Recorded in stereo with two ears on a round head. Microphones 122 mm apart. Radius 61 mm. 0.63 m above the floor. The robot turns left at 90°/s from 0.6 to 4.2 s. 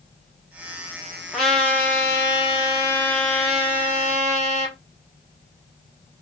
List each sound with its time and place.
1.3 s a trumpet: 5° right (ahead or behind), 1.3 m; by 4.8 s 25° right (ahead or behind), 1.3 m